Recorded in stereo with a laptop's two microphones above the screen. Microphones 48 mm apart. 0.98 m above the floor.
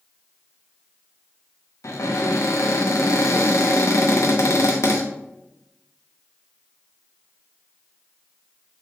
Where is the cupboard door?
80° left, 0.8 m.